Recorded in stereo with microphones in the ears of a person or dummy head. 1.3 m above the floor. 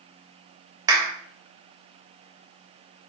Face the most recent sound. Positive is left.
turn(degrees=-20)  # may be behind; listen again after turning